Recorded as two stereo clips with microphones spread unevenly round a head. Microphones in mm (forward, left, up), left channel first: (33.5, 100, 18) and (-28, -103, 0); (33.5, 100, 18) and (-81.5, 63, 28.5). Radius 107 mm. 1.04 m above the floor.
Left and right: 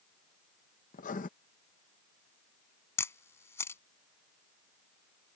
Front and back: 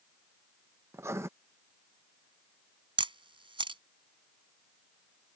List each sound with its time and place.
0.9 s writing: 130° left
3.0 s a camera shutter: 150° left